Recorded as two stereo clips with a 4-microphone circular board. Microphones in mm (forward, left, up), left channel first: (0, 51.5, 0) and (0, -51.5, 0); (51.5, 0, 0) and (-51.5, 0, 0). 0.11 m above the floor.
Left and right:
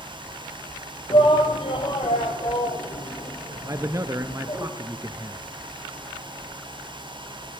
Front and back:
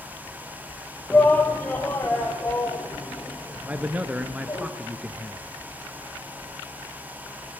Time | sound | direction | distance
1.1 | a shout | 70° left | 3 m
3.7 | a man speaking | 115° right | 1.8 m